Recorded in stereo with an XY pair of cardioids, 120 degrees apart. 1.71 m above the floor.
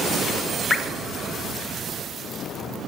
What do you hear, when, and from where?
0.7 s dripping: 15° left, 1.2 m